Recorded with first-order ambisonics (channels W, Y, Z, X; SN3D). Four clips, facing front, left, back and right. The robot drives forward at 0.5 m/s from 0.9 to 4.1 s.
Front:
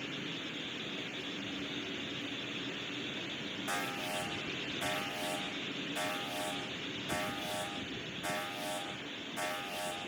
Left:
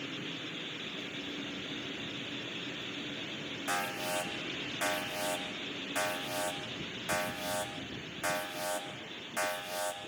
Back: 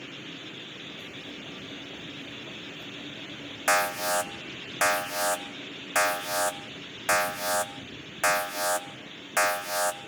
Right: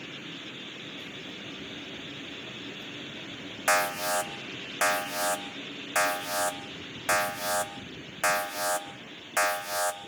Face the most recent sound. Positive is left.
turn(degrees=-150)